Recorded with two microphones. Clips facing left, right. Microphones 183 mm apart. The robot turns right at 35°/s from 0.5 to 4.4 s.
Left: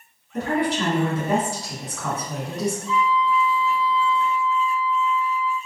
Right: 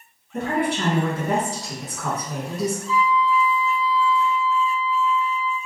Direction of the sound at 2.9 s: 35° right.